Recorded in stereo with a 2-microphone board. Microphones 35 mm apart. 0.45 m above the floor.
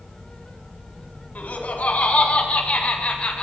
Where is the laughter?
45° left (ahead or behind), 4 m; by 3.4 s 25° left (ahead or behind), 3 m.